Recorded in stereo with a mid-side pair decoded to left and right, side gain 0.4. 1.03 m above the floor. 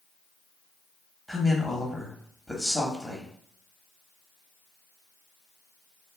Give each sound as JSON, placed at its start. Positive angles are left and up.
{"t": 1.3, "sound": "a woman speaking", "azimuth_deg": 0, "distance_m": 1.2}